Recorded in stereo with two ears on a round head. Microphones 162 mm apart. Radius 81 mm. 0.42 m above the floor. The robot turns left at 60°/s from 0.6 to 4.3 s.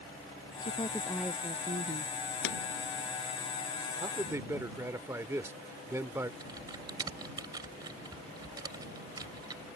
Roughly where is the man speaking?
Right.